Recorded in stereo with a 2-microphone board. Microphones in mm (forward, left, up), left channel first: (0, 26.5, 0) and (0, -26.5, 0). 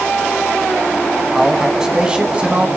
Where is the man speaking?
10° right (ahead or behind), 3 m; by 2.7 s 25° right (ahead or behind), 3 m.